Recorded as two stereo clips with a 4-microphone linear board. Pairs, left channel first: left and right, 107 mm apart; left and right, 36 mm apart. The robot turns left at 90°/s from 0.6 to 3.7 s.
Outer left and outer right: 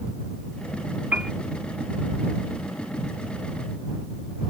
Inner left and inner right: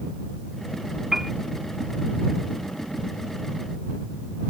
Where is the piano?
20° right (ahead or behind); by 1.3 s 5° right (ahead or behind).